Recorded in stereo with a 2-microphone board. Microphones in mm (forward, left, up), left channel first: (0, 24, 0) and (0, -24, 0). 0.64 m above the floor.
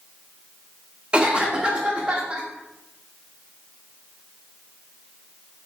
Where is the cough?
20° right (ahead or behind), 0.5 m.